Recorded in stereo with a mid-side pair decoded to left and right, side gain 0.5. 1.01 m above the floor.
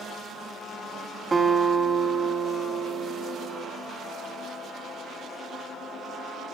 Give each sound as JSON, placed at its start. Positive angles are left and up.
{"t": 1.3, "sound": "a guitar", "azimuth_deg": -25, "distance_m": 6.0}